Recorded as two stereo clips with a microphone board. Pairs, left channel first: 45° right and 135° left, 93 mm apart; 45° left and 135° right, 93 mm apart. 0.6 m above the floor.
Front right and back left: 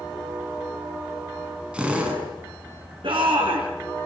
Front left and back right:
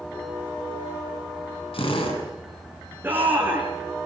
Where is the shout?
155° left, 7 m.